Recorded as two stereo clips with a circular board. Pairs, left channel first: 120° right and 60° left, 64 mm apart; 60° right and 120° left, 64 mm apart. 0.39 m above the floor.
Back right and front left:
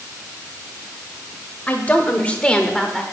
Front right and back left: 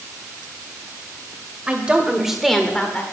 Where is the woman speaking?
175° right, 1.6 m; by 3.0 s 30° right, 1.1 m.